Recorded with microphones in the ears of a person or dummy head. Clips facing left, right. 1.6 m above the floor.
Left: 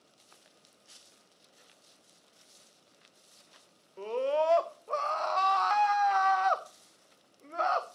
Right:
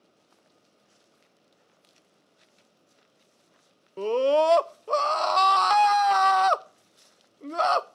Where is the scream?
55° right (ahead or behind), 0.6 m.